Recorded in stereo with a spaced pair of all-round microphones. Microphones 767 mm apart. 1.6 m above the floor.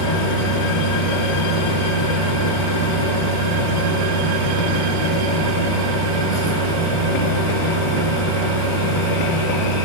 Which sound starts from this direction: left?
A fan, at 0.0 s.